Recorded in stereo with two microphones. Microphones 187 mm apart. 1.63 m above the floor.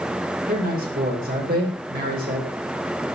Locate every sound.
0.5 s a man speaking: 50° right (ahead or behind), 8 m